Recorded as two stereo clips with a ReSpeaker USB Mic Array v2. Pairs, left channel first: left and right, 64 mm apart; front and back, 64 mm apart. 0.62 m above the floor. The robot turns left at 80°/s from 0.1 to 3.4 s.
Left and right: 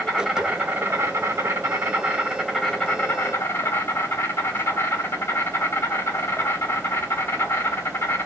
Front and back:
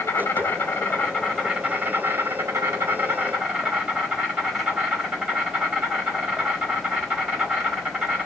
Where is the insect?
20° left, 1.3 m; by 8.3 s 115° left, 1.3 m.